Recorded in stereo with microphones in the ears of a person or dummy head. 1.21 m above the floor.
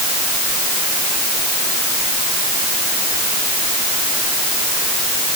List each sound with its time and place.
Only background noise.